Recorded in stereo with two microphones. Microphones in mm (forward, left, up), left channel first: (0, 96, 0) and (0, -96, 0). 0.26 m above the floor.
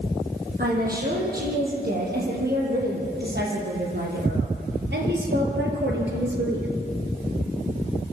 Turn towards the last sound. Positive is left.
turn(degrees=-70)  # may be behind; listen again after turning